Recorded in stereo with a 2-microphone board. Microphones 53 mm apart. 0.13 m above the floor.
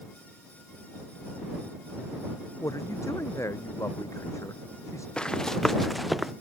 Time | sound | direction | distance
2.6 | a man speaking | 70° left (ahead or behind) | ?
5.2 | running footsteps | 20° left (ahead or behind) | ?